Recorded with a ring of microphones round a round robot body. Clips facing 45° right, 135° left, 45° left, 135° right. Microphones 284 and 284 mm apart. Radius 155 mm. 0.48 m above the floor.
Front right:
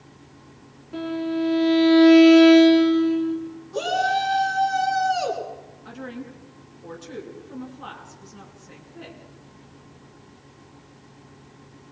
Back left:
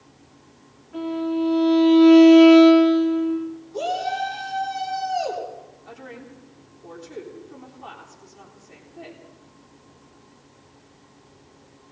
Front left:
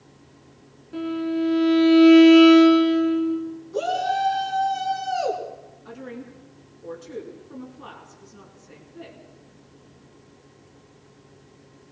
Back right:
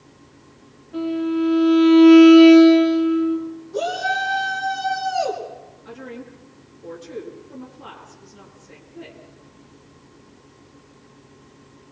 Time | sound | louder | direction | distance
0.9 | a violin | back left 1 dB, back right 3 dB | 5° right | 5.5 m
3.7 | a shout | front right 4 dB, even | 35° right | 6.5 m
5.8 | a woman speaking | front right 6 dB, back right 1 dB | 30° right | 7 m